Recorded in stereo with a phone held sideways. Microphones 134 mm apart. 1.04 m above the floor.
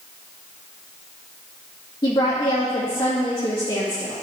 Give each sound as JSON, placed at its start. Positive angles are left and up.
{"t": 2.0, "sound": "a woman speaking", "side_deg": 30, "distance_m": 1.8}